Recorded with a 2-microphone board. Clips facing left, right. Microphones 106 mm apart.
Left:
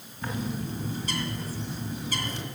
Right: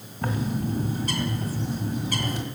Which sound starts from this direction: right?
A bird, at 0.2 s.